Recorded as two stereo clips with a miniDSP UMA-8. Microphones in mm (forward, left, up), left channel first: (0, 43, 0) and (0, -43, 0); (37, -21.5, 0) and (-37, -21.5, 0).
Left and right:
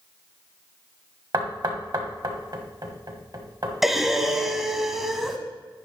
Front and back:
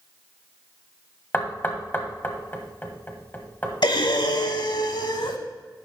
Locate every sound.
1.3 s knocking: 60° right, 1.4 m
3.8 s breathing: straight ahead, 0.9 m